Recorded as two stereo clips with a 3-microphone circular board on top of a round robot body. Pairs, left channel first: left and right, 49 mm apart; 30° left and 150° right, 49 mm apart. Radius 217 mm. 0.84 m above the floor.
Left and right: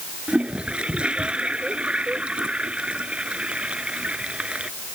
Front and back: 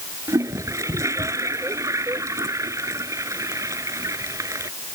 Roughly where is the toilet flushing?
Behind right.